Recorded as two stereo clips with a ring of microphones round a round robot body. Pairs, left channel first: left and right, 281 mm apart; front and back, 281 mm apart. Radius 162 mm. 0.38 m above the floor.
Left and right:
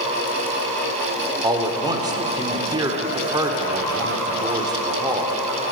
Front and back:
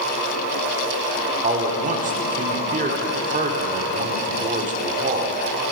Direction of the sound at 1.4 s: 150° right.